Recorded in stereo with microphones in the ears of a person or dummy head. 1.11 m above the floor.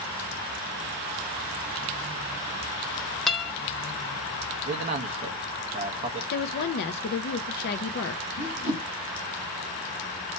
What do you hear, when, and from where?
3.3 s a guitar: 5° left (ahead or behind), 0.9 m
4.7 s a man speaking: 35° right (ahead or behind), 1.3 m
6.3 s a woman speaking: 50° left (ahead or behind), 0.5 m
8.4 s a whoosh: 60° left (ahead or behind), 1.3 m